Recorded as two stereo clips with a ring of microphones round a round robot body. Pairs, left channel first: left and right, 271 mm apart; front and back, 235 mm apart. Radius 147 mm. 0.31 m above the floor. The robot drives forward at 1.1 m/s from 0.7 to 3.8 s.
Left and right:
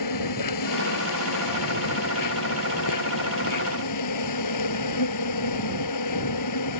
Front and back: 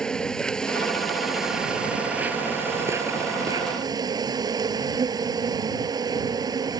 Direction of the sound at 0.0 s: 85° left.